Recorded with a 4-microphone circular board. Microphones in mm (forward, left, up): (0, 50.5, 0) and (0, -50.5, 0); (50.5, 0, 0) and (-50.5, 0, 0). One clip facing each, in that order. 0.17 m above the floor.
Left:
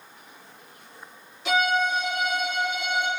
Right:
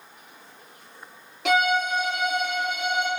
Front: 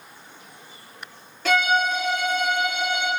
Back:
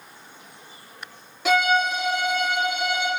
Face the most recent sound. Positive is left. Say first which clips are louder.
# right 1 dB, back 1 dB
turn(degrees=-105)